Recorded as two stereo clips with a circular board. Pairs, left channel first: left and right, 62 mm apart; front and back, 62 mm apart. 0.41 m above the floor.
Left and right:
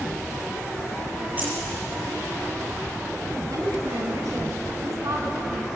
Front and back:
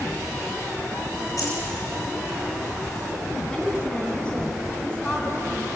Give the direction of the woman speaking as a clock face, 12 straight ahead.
2 o'clock.